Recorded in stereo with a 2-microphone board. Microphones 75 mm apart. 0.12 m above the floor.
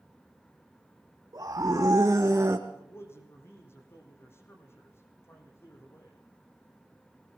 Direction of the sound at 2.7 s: 35° left (ahead or behind).